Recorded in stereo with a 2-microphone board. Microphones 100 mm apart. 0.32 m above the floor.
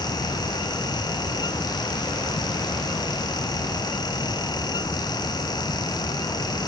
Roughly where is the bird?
No bird in this recording.